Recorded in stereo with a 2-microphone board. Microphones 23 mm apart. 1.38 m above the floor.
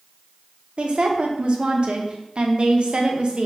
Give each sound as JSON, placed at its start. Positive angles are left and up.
{"t": 0.8, "sound": "a woman speaking", "side_deg": -50, "distance_m": 0.6}